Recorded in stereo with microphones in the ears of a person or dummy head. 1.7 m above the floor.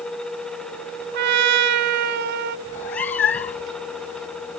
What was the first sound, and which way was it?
A trumpet, 60° right (ahead or behind).